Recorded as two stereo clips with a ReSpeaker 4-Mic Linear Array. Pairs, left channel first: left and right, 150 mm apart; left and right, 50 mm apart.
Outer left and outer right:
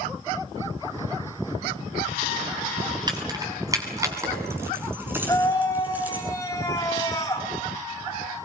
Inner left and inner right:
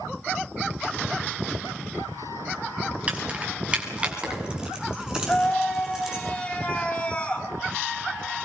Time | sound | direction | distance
3.1 | keys jangling | 25° right (ahead or behind) | 5 m
5.3 | a scream | 20° left (ahead or behind) | 6.5 m